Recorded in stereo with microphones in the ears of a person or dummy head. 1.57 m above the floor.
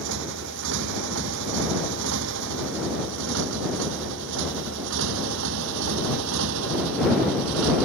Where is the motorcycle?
70° right (ahead or behind); by 7.9 s 75° right (ahead or behind).